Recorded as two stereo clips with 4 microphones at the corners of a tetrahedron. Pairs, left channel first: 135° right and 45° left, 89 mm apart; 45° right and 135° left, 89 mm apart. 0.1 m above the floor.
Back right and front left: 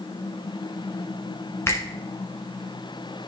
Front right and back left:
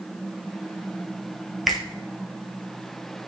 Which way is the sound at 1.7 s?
135° right.